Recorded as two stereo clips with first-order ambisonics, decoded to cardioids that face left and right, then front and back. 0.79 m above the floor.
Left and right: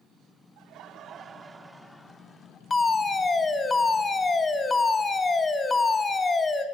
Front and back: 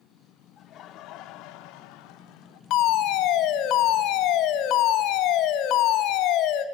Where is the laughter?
55° right, 1.5 m; by 2.6 s 20° left, 1.7 m.